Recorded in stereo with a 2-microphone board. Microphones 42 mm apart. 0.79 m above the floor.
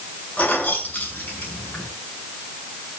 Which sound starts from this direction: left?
Keys jangling, at 0.4 s.